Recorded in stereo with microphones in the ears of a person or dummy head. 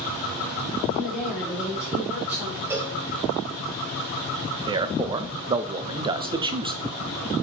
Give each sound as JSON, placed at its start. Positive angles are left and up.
{"t": 0.9, "sound": "a woman speaking", "side_deg": -5, "distance_m": 4.0}
{"t": 2.7, "sound": "a cowbell", "side_deg": -10, "distance_m": 0.5}
{"t": 4.7, "sound": "a man speaking", "side_deg": -20, "distance_m": 0.5}